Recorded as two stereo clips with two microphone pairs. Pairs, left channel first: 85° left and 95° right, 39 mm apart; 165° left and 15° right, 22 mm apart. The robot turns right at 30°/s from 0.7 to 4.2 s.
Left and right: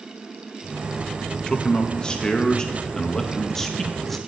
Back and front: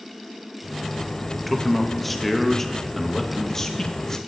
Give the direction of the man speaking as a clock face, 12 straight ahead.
10 o'clock.